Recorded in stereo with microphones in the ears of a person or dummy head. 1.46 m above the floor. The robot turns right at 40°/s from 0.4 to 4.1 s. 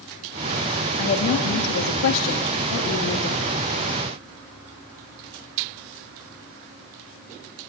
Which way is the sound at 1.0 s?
50° left.